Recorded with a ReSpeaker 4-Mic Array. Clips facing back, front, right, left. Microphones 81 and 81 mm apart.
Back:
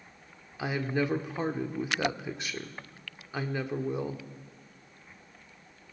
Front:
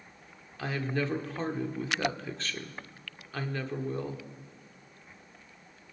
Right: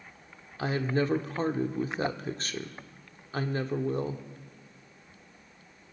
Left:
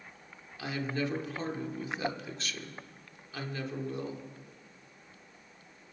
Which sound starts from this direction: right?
A woman speaking, at 0.6 s.